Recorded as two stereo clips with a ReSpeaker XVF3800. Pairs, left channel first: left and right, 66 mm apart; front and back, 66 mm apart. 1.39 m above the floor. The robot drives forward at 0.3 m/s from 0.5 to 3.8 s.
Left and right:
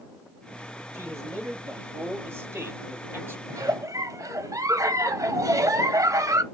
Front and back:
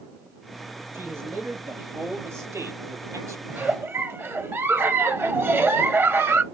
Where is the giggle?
115° right, 0.5 m; by 6.4 s 125° right, 0.6 m.